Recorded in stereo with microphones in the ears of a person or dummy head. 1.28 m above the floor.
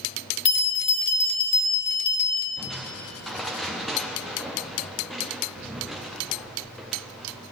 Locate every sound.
0.5 s a bell: 40° left (ahead or behind), 1.9 m
2.6 s crushing: 5° left (ahead or behind), 0.7 m